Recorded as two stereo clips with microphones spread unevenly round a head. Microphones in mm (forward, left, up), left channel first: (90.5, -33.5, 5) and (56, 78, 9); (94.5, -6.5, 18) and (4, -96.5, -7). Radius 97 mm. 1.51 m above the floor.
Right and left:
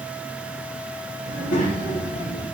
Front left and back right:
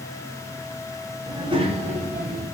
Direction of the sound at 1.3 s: 70° right.